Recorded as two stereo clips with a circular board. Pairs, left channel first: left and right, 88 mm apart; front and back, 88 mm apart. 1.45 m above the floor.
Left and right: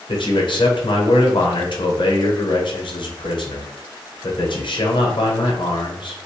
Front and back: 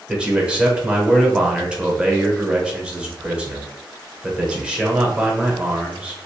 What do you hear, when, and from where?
0.1 s a man speaking: 105° left, 0.7 m